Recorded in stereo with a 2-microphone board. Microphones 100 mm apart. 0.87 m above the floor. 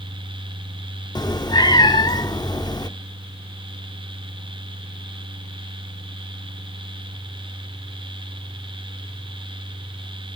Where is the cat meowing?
45° left (ahead or behind), 0.7 m.